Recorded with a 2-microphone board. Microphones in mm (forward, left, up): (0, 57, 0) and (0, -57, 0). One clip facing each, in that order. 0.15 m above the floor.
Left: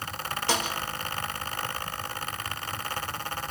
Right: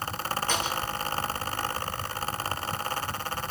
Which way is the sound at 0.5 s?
80° left.